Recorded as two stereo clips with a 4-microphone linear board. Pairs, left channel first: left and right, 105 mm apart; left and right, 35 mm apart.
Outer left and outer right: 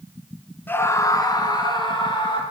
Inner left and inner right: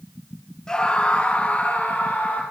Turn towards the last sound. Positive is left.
turn(degrees=50)  # may be behind; listen again after turning